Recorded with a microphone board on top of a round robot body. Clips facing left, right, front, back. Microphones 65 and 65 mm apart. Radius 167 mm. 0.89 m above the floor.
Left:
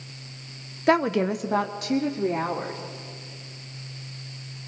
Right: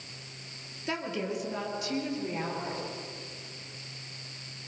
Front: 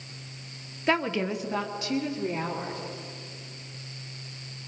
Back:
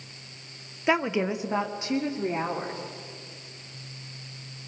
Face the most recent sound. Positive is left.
turn(degrees=120)